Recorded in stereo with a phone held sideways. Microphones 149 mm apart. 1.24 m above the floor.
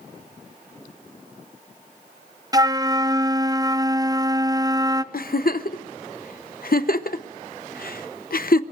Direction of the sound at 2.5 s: 25° right (ahead or behind).